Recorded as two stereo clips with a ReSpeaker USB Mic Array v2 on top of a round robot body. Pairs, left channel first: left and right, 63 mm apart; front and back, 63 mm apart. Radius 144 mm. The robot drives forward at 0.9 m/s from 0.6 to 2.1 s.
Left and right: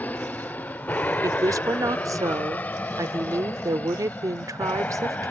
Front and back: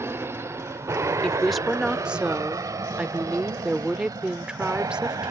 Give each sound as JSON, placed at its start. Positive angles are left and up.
{"t": 0.0, "sound": "an aircraft", "azimuth_deg": 145}
{"t": 1.2, "sound": "a woman speaking", "azimuth_deg": -80}